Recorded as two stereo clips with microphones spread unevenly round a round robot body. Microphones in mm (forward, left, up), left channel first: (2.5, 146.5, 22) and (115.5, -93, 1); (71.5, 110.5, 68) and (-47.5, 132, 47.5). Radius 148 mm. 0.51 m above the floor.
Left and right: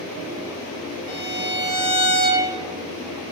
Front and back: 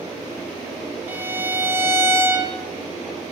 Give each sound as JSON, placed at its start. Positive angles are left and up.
{"t": 1.1, "sound": "a violin", "azimuth_deg": 125, "distance_m": 1.3}